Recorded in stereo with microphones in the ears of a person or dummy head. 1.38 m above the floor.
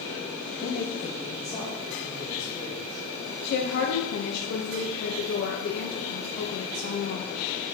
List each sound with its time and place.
0.6 s a man speaking: 45° left (ahead or behind), 1.0 m; by 3.0 s 20° left (ahead or behind), 3 m
3.5 s a woman speaking: 65° left (ahead or behind), 1.0 m